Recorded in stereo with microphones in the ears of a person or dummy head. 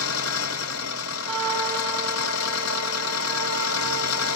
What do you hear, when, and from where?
0.0 s an engine running: 80° left, 1.4 m
1.3 s a trumpet: 35° right (ahead or behind), 4.5 m